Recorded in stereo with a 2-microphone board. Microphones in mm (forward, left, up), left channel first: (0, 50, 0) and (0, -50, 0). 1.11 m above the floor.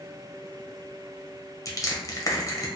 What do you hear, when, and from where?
1.6 s crushing: 35° left (ahead or behind), 0.8 m